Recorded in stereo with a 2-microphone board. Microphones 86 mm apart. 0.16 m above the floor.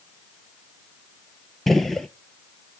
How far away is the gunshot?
About 0.8 m.